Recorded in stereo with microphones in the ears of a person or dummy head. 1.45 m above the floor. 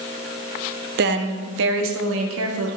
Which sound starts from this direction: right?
A woman speaking, at 1.0 s.